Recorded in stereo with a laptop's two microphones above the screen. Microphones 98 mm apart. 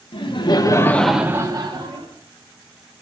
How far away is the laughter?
About 1.2 m.